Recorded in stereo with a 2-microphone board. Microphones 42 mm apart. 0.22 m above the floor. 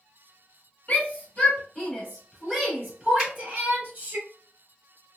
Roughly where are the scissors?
No scissors in this recording.